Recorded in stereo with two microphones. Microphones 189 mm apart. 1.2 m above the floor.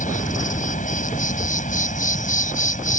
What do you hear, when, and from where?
0.0 s an insect: 45° left (ahead or behind)